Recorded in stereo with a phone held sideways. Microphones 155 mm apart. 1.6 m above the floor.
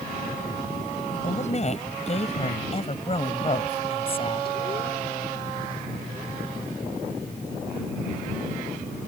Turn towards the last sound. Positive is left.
turn(degrees=35)  # may be behind; listen again after turning